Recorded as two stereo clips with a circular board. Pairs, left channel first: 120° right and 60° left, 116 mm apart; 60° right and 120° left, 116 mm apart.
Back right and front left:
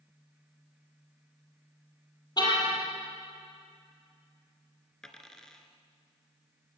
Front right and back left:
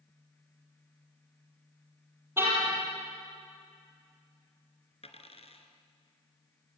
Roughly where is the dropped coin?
Ahead right.